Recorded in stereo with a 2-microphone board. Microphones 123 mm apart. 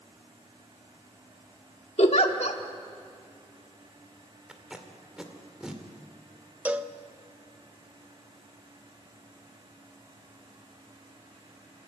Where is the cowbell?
10° right (ahead or behind), 0.7 m.